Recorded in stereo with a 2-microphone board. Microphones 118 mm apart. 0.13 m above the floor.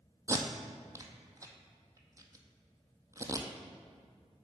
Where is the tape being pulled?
25° right (ahead or behind), 0.7 m.